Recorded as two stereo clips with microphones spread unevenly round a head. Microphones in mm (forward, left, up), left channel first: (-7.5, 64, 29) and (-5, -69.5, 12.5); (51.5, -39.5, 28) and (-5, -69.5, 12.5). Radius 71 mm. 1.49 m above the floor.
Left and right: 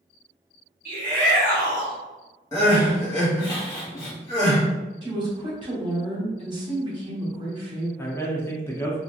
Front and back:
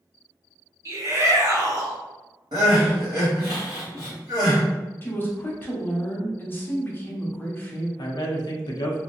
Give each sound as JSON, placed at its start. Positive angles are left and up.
{"t": 0.8, "sound": "a shout", "azimuth_deg": -115, "distance_m": 1.6}
{"t": 2.5, "sound": "crying", "azimuth_deg": 150, "distance_m": 1.4}
{"t": 5.0, "sound": "a woman speaking", "azimuth_deg": -30, "distance_m": 1.2}
{"t": 8.0, "sound": "a man speaking", "azimuth_deg": 15, "distance_m": 0.7}